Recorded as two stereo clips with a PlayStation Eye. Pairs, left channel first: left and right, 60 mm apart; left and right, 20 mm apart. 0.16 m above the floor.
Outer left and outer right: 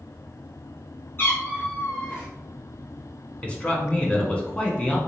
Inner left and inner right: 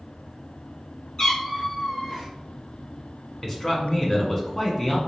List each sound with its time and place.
1.2 s a cat meowing: 40° left (ahead or behind), 1.6 m
3.4 s a man speaking: 20° left (ahead or behind), 1.2 m